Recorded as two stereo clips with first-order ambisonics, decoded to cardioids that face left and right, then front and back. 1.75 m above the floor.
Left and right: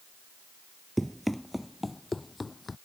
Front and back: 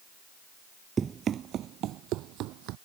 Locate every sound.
1.0 s running footsteps: 165° right; by 2.8 s 165° left